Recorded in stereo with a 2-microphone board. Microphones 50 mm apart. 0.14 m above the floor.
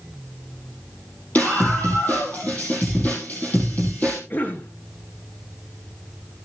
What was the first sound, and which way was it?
A scream, 30° left (ahead or behind).